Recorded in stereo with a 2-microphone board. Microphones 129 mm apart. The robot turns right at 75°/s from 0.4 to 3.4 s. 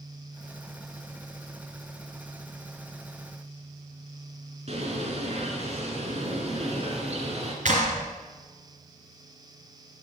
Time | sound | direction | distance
4.7 | a bird | 55° right (ahead or behind) | 2.5 m
7.7 | a clap | 75° right (ahead or behind) | 2.5 m